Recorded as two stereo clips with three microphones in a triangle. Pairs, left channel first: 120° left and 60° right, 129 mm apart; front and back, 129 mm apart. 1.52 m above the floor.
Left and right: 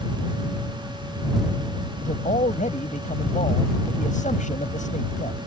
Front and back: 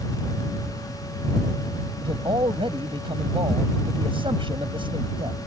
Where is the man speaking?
130° left.